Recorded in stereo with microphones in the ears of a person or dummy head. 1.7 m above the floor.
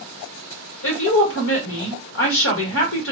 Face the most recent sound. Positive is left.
turn(degrees=70)  # may be behind; listen again after turning